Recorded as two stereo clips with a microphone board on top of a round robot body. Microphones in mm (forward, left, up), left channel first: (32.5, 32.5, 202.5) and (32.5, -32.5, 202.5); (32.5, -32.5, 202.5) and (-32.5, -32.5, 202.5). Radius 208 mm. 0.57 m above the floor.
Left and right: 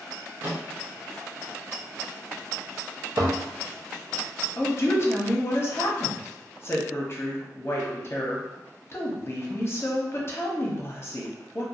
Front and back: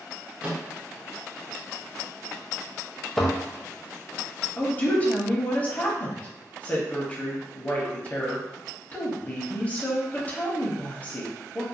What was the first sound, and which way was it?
A microwave, 120° right.